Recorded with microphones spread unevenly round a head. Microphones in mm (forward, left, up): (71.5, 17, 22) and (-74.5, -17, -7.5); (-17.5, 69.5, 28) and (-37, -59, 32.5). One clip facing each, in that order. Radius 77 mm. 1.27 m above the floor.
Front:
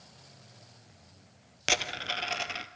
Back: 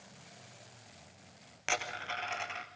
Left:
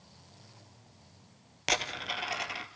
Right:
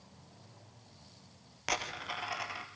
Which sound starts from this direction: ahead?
A dropped coin, at 1.7 s.